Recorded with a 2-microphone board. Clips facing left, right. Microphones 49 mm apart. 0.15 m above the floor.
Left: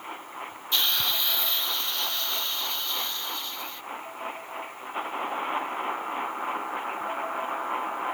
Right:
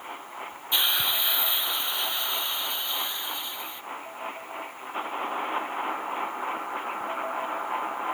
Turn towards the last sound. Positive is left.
turn(degrees=-15)  # may be behind; listen again after turning